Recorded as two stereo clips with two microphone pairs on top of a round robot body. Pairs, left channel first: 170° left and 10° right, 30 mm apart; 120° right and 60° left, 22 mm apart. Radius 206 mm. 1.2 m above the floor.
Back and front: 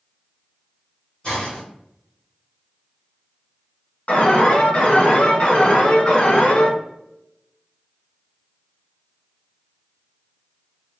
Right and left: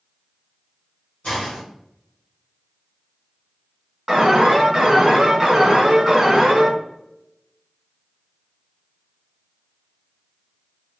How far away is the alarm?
About 1.8 m.